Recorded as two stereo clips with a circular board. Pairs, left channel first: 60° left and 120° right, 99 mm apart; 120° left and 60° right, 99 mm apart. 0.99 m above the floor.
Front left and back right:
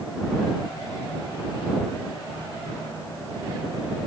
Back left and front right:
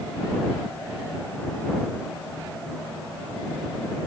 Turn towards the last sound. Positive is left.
No sound to turn to.